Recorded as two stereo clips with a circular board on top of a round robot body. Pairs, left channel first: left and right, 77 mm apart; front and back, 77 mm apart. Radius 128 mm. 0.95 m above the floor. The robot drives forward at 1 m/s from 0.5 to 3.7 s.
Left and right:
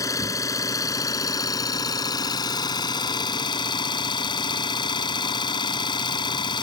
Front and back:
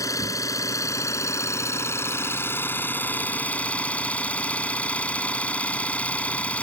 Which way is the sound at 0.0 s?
45° left.